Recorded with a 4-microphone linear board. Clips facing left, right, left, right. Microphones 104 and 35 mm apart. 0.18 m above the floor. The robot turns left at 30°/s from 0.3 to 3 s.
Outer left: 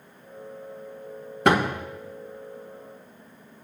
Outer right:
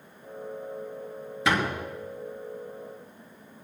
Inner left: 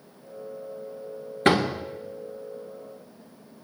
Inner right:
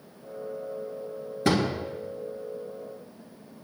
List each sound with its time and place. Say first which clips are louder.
1.4 s a door slam: outer left 5 dB, inner left 3 dB; 55° left (ahead or behind), 1.9 m; by 1.8 s 45° left (ahead or behind), 1.9 m